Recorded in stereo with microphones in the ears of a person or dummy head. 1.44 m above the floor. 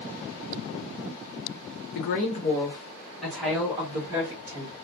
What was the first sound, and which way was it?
A woman speaking, 55° left (ahead or behind).